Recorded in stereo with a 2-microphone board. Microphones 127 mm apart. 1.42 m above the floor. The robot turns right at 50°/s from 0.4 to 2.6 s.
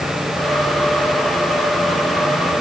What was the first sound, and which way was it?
Only background noise.